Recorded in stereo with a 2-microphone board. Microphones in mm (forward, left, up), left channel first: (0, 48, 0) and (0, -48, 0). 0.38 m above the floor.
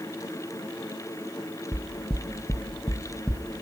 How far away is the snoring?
I don't hear snoring.